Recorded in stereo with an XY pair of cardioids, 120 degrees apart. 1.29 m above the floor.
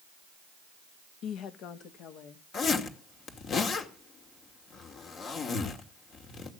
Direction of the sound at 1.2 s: 65° left.